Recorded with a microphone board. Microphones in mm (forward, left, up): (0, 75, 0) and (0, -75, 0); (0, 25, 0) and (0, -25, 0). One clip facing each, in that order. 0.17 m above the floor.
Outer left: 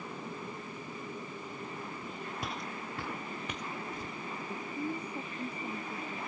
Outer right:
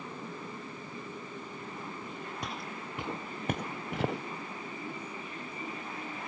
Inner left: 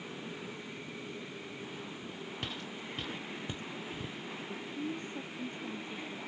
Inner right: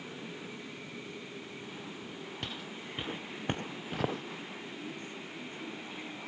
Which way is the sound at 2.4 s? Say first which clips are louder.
Even, inner left 1 dB; centre (ahead or behind).